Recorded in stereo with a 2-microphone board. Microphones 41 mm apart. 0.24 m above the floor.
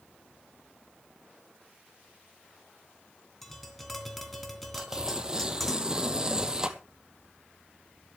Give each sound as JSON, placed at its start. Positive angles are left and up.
{"t": 3.4, "sound": "tapping", "side_deg": 5, "distance_m": 2.5}
{"t": 4.8, "sound": "tearing paper", "side_deg": -15, "distance_m": 1.2}